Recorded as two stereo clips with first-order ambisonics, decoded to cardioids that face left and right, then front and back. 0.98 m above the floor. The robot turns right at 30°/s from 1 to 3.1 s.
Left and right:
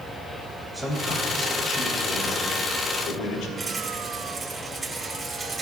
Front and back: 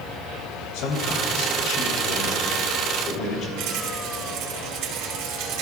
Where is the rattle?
165° right, 3 m.